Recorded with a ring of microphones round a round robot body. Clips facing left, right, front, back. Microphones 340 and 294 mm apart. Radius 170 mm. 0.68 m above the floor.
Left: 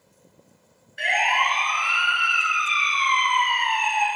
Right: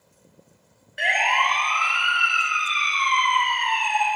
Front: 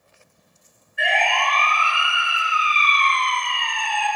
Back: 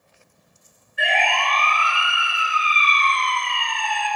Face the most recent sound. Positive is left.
turn(degrees=-85)